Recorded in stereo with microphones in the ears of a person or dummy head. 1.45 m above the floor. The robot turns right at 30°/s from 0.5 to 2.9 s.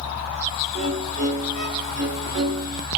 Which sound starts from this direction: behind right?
A violin, at 0.7 s.